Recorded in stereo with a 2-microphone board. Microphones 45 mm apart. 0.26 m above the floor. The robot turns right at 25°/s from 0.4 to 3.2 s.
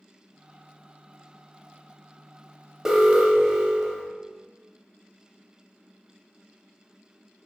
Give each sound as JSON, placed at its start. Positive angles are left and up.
{"t": 2.9, "sound": "an alarm", "side_deg": -10, "distance_m": 0.6}